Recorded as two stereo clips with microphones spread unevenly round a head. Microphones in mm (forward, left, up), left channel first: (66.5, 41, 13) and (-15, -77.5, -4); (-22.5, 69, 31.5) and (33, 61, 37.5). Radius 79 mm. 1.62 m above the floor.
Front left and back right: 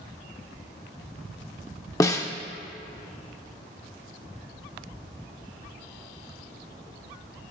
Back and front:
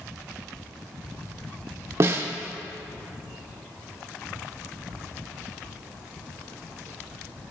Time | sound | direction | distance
2.0 | a snare drum | straight ahead | 0.6 m